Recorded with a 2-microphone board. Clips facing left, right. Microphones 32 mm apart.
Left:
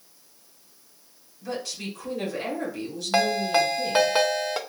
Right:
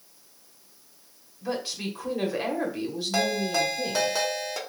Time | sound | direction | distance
1.4 | a woman speaking | 30° right (ahead or behind) | 1.2 m
3.1 | a ringtone | 40° left (ahead or behind) | 0.5 m